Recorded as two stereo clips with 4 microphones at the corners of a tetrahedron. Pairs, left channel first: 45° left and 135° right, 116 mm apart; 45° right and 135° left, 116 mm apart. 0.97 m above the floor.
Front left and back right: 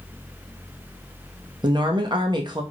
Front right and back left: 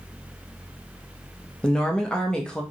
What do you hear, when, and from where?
1.6 s a woman speaking: 125° right, 0.7 m